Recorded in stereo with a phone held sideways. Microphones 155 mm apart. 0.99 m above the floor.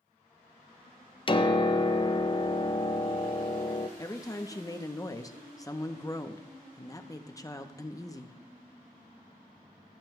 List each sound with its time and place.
1.3 s a piano: 35° left (ahead or behind), 0.5 m
4.0 s a woman speaking: 20° left (ahead or behind), 0.6 m